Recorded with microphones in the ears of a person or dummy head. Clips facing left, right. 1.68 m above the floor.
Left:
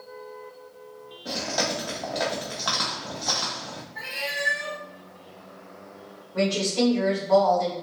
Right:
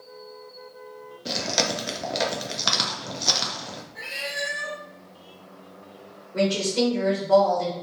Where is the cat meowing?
55° right (ahead or behind), 1.6 m.